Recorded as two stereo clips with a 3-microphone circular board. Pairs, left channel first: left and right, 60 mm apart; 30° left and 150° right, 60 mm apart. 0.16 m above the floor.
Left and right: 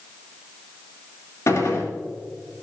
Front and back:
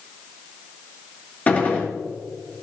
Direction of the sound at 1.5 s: 90° left.